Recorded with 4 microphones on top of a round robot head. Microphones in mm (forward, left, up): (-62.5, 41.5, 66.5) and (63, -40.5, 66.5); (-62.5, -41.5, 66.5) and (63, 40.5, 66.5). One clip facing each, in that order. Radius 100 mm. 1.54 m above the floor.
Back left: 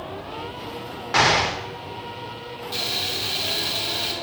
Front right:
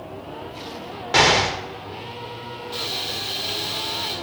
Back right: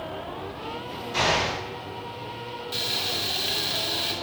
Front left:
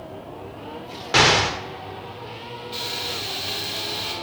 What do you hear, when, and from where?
1.1 s an explosion: 30° left, 1.1 m
2.7 s frying: 175° left, 2.0 m